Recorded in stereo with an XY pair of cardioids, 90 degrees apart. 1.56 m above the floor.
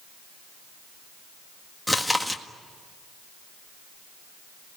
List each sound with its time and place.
1.9 s chewing: straight ahead, 1.8 m